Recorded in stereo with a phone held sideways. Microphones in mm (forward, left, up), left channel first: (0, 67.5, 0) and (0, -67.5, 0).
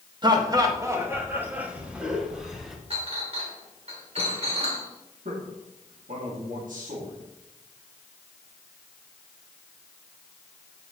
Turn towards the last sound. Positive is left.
turn(degrees=-75)  # may be behind; listen again after turning